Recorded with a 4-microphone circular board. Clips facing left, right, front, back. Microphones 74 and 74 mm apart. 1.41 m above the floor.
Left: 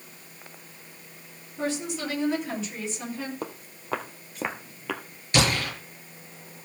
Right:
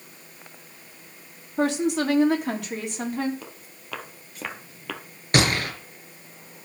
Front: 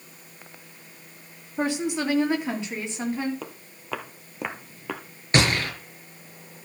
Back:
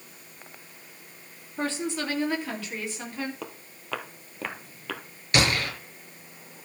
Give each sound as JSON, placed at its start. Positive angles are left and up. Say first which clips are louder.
{"t": 1.6, "sound": "a woman speaking", "louder": "right 7 dB, front 4 dB", "azimuth_deg": -75, "distance_m": 3.0}
{"t": 3.4, "sound": "footsteps", "louder": "left 7 dB, front 1 dB", "azimuth_deg": 85, "distance_m": 1.9}
{"t": 5.3, "sound": "a gunshot", "louder": "right 2 dB, front 2 dB", "azimuth_deg": -55, "distance_m": 5.0}